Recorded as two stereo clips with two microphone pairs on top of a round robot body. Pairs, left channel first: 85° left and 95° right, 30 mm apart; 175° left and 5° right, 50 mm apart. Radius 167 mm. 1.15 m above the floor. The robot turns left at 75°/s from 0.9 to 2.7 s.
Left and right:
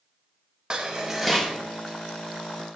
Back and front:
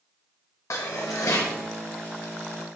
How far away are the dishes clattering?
About 1.1 m.